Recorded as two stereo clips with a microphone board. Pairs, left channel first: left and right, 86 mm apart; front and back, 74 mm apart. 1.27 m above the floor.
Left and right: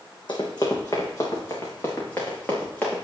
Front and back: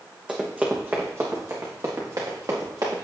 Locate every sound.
0.3 s running footsteps: 110° left, 3 m; by 3.0 s 160° left, 5.5 m